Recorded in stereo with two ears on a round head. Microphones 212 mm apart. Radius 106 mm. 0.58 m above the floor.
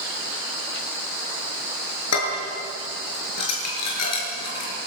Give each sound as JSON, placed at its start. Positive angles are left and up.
{"t": 2.1, "sound": "dishes clattering", "side_deg": 85, "distance_m": 6.5}